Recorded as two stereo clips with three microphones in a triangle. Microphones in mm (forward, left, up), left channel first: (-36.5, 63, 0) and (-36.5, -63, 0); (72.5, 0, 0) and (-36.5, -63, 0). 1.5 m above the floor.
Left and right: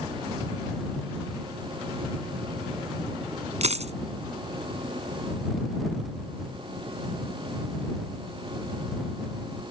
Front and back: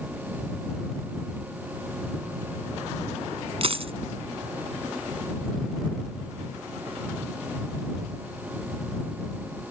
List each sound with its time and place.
3.6 s a dropped coin: 110° right